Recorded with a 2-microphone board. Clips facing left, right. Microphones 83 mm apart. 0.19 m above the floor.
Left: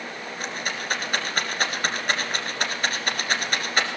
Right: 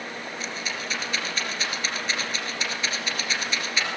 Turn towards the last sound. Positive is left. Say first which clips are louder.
# left 4 dB
turn(degrees=55)  # may be behind; listen again after turning